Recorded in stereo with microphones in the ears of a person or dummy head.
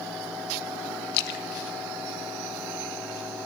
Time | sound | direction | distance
1.1 | a splash | 55° left (ahead or behind) | 1.8 m